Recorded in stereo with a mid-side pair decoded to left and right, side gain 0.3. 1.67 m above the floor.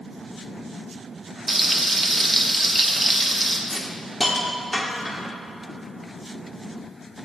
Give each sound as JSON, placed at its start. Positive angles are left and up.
{"t": 1.5, "sound": "frying", "azimuth_deg": -25, "distance_m": 0.9}
{"t": 3.7, "sound": "a hiss", "azimuth_deg": 20, "distance_m": 1.0}